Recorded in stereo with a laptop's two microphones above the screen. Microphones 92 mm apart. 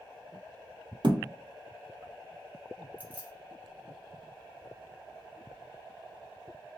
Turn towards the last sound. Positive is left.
turn(degrees=15)  # may be behind; listen again after turning